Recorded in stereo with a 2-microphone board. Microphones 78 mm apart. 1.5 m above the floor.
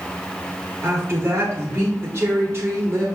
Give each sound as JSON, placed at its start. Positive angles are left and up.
{"t": 0.8, "sound": "a woman speaking", "side_deg": -30, "distance_m": 1.3}